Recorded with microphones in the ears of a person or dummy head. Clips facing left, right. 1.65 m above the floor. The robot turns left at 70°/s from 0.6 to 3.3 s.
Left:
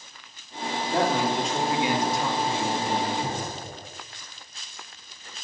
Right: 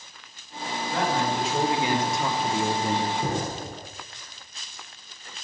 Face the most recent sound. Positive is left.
turn(degrees=-55)  # may be behind; listen again after turning